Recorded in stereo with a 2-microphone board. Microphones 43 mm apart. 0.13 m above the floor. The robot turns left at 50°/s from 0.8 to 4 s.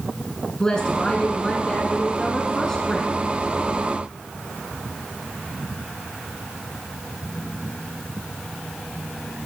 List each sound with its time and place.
0.6 s a woman speaking: 15° left (ahead or behind), 1.1 m; by 3.1 s 5° left (ahead or behind), 1.1 m